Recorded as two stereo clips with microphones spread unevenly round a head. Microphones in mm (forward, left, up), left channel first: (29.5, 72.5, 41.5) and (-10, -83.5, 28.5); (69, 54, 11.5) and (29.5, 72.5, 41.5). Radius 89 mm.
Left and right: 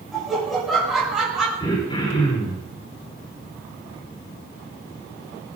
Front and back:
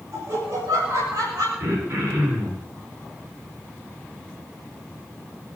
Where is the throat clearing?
140° left, 7 m.